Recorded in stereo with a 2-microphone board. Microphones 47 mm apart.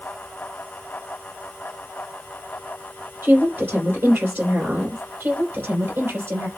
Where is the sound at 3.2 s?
50° right (ahead or behind), 3 m.